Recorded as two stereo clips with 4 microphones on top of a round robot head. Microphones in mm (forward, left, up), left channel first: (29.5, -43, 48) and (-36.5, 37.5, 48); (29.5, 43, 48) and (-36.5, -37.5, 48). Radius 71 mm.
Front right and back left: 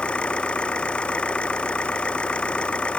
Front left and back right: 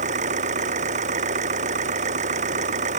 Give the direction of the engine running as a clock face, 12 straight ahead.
4 o'clock.